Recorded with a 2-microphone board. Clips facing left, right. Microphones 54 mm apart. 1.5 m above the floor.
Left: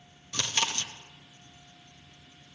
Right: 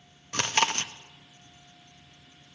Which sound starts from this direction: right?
Chewing, at 0.3 s.